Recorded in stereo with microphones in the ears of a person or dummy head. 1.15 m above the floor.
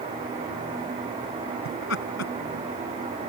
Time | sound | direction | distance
1.6 | laughter | 70° left (ahead or behind) | ?